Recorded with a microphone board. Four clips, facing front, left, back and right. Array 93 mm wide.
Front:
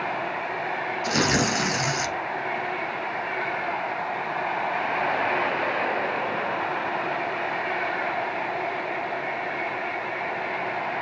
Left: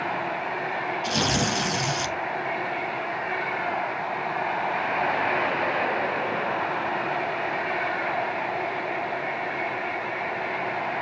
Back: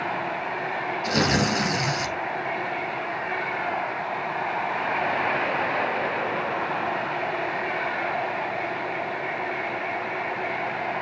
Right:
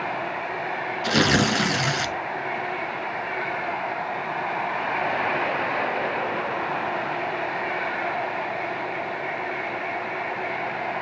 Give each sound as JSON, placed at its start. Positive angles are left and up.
{"t": 1.0, "sound": "tearing paper", "azimuth_deg": -85, "distance_m": 1.2}